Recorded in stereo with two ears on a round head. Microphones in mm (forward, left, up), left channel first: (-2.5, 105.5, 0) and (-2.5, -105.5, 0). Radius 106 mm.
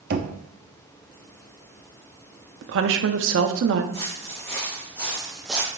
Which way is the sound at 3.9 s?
15° left (ahead or behind).